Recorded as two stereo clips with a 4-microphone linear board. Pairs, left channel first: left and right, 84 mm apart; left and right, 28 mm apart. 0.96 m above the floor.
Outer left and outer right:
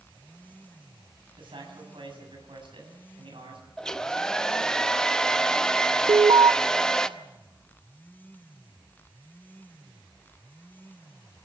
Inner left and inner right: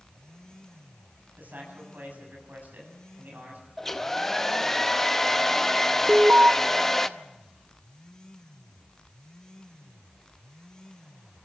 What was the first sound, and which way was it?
A man speaking, 85° right.